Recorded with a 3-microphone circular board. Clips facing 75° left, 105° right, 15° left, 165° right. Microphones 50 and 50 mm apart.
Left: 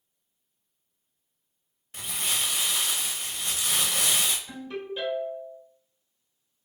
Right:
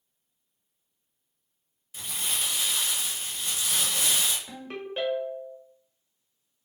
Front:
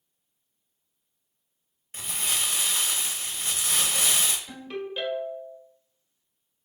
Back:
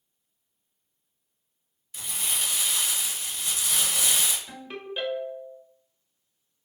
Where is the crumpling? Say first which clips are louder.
Left 2 dB, front 2 dB; 60° left, 0.5 m.